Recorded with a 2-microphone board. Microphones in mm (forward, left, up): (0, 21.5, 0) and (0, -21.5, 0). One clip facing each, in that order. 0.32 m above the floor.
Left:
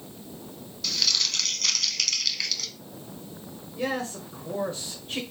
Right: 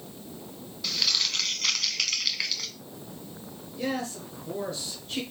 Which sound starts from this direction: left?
A man speaking, at 3.8 s.